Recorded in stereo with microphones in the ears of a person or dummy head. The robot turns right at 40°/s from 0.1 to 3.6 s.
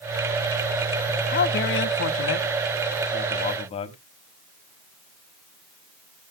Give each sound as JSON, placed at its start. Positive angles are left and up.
{"t": 1.3, "sound": "a man speaking", "azimuth_deg": 55, "distance_m": 1.2}